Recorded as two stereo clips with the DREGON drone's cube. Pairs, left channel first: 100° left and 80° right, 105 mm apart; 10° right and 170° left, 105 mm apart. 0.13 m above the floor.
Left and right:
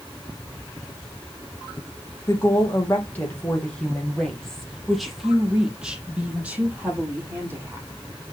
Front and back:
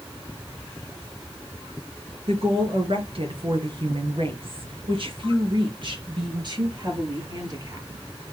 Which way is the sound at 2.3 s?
165° left.